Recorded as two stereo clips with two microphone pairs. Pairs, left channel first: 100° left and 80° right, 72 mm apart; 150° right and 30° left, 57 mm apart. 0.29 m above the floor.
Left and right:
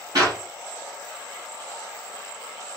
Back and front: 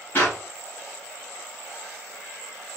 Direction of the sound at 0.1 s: 100° right.